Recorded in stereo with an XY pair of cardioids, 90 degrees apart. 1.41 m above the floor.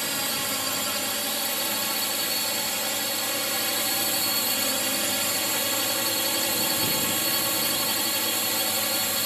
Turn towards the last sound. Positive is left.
turn(degrees=-5)